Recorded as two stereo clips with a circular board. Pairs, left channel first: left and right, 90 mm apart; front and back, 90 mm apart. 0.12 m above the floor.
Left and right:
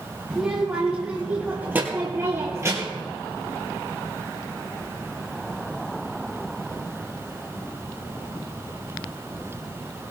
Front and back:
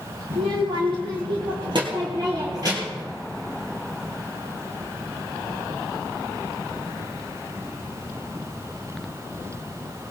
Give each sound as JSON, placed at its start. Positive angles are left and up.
{"t": 0.3, "sound": "a child speaking", "azimuth_deg": -175, "distance_m": 3.0}